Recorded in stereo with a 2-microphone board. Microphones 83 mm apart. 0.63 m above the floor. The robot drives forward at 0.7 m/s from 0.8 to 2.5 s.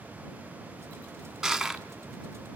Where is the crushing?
5° right (ahead or behind), 1.3 m.